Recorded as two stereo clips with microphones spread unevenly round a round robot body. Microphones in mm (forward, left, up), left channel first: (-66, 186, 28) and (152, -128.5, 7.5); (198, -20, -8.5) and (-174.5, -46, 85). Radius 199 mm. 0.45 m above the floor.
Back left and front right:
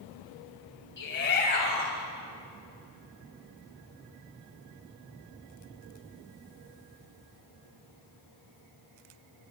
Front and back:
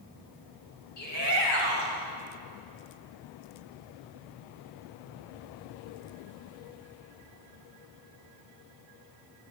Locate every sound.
1.0 s a shout: 65° left, 3 m; by 2.0 s 55° left, 3 m